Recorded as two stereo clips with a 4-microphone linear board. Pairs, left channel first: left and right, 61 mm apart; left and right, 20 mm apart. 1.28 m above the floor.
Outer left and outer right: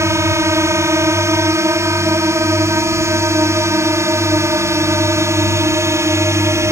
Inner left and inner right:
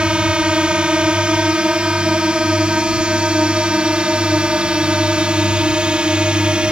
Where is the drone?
50° right (ahead or behind).